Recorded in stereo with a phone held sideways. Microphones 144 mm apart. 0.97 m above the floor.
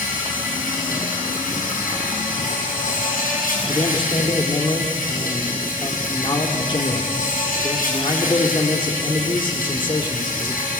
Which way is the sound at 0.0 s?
75° left (ahead or behind).